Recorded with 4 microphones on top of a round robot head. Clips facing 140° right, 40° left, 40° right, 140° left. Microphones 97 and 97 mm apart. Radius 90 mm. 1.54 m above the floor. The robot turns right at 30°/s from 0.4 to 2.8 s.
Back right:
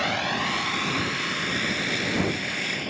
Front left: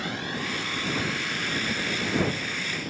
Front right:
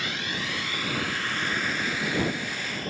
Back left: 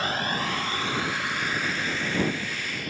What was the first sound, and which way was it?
A vehicle, 165° right.